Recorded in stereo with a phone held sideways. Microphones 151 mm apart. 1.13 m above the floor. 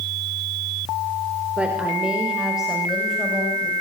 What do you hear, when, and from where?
1.6 s a woman speaking: 5° right (ahead or behind), 5 m; by 3.7 s centre (ahead or behind), 8 m